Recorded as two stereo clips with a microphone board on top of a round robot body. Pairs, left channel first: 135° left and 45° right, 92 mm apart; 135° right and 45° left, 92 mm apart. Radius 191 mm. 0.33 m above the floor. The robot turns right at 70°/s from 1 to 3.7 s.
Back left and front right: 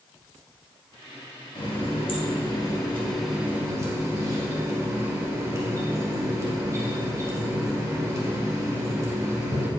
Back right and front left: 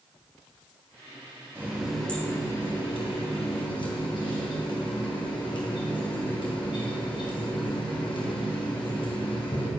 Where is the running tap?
105° left, 2 m; by 9.7 s 105° right, 2 m.